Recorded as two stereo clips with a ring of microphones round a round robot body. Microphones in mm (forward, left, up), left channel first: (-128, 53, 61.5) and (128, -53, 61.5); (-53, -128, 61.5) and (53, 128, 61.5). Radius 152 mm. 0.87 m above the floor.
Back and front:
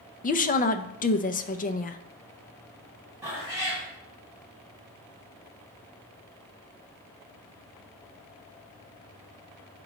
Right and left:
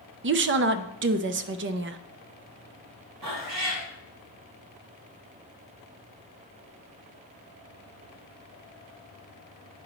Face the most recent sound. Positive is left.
turn(degrees=55)